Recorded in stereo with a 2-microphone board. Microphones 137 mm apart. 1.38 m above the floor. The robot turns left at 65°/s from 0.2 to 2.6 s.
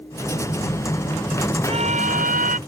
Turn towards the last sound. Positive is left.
turn(degrees=-105)